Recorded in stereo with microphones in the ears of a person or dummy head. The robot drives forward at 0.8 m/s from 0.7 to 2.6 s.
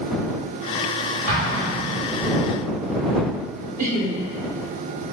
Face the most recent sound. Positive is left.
turn(degrees=-45)  # may be behind; listen again after turning